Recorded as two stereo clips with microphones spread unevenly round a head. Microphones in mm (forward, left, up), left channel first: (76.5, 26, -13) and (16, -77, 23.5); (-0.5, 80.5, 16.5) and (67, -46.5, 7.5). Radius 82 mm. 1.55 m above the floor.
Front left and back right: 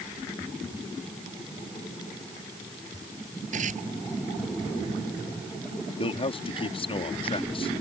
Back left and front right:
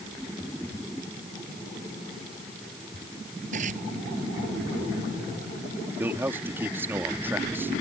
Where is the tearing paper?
115° right.